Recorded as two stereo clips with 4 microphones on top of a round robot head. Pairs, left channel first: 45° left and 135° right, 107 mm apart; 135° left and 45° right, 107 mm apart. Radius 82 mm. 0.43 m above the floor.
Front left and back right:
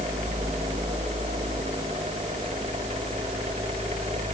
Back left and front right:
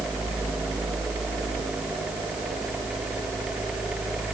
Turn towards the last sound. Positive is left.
No sound to turn to.